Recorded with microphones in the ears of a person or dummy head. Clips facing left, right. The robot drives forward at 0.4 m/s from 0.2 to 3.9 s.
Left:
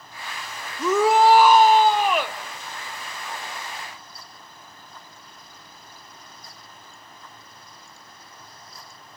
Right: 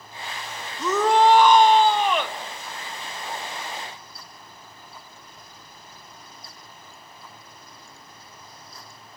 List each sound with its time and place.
0.8 s a shout: 10° left (ahead or behind), 0.7 m; by 2.4 s 5° left (ahead or behind), 1.3 m